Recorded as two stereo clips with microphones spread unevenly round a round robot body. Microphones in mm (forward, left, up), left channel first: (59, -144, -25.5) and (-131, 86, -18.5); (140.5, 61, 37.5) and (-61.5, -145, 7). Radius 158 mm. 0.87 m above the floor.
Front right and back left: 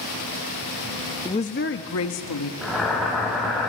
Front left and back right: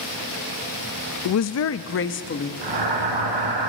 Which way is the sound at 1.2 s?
30° left.